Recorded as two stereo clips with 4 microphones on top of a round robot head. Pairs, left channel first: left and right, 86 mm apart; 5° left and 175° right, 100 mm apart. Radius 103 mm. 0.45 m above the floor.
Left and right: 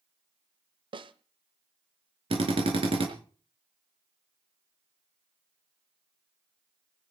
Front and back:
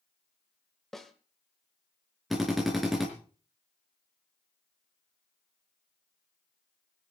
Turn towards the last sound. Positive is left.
turn(degrees=-85)